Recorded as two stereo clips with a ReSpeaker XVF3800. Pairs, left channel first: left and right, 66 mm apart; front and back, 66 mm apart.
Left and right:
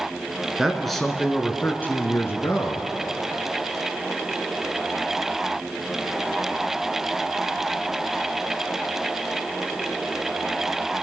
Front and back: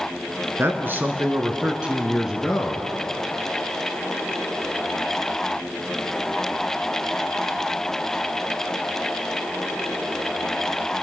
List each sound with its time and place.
0.6 s a man speaking: 170° right, 1.5 m; by 2.9 s 90° left, 1.8 m